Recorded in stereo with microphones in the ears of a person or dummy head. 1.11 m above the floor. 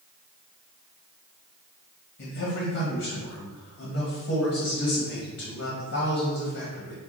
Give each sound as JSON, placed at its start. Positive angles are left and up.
{"t": 2.2, "sound": "a man speaking", "side_deg": 50, "distance_m": 1.3}